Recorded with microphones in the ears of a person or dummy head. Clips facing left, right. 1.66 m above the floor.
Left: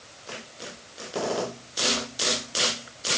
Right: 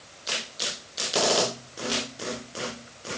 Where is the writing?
No writing in this recording.